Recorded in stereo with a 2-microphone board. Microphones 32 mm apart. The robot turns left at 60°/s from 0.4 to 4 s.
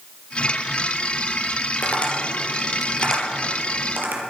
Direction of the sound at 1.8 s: 60° left (ahead or behind).